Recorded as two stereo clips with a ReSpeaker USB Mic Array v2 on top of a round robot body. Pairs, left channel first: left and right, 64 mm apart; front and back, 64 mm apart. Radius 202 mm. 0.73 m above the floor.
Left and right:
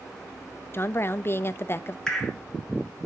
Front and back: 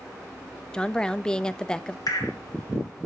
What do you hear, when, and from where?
0.7 s a woman speaking: 70° left, 0.6 m
2.1 s dripping: 10° left, 1.7 m